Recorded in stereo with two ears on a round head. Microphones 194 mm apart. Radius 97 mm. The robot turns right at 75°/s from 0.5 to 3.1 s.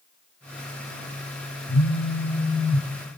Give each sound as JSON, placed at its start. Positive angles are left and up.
{"t": 1.7, "sound": "a phone buzzing", "azimuth_deg": 105, "distance_m": 5.5}